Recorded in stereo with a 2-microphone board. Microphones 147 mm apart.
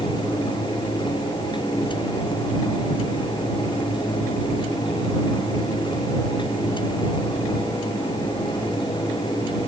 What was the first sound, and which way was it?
Only background noise.